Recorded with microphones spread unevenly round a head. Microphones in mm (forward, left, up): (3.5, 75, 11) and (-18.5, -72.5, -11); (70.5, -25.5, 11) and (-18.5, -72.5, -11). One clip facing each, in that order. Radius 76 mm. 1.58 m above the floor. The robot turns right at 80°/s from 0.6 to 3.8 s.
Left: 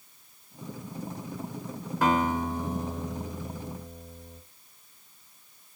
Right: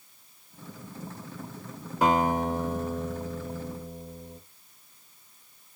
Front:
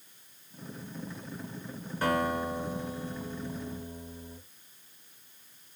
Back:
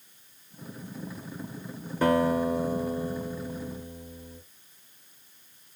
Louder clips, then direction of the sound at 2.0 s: Right 2 dB, back 6 dB; 175° right.